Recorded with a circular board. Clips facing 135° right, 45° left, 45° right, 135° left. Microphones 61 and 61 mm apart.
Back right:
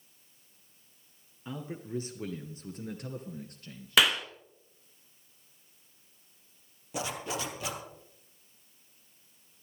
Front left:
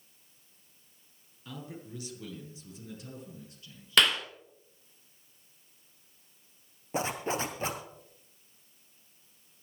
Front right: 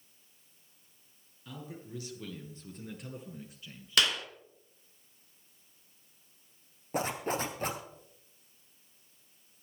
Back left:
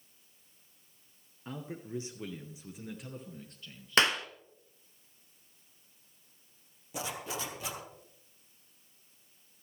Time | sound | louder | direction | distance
1.4 | a man speaking | back right 4 dB, back left 4 dB | 170° left | 2 m
4.0 | a clap | even, back left 3 dB | 145° left | 1.1 m
6.9 | a zipper | front left 4 dB, front right 6 dB | 5° right | 1.8 m